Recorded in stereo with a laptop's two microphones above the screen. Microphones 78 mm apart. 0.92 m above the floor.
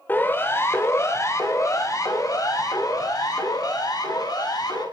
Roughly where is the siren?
Left.